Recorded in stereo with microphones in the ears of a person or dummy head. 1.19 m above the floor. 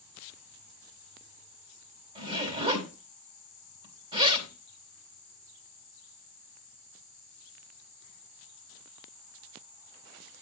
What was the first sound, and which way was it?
A zipper, 30° right (ahead or behind).